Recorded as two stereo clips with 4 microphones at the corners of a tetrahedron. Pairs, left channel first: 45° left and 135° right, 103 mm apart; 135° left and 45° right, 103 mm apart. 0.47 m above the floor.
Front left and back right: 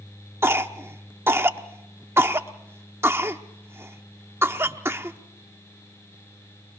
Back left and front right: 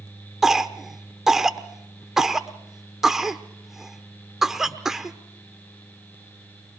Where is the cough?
125° right, 0.9 m.